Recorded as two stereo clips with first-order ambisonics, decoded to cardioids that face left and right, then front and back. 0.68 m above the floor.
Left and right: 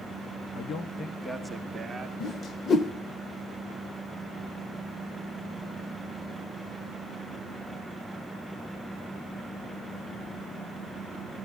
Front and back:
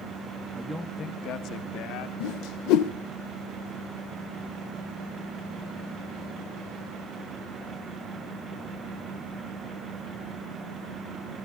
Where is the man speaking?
110° left, 1.0 m; by 2.1 s 15° right, 2 m.